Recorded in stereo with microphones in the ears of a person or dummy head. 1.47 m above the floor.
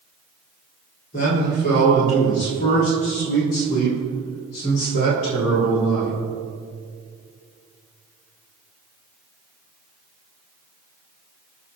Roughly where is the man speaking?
Left.